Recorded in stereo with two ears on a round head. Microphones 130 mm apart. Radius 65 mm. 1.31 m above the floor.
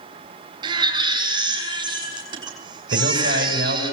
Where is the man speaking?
85° right, 7.5 m.